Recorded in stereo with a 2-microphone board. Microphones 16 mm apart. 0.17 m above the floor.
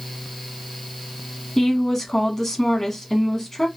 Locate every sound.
1.6 s a woman speaking: 15° left (ahead or behind), 1.2 m